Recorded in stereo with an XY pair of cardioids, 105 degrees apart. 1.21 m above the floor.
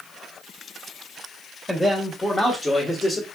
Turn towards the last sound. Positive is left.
turn(degrees=45)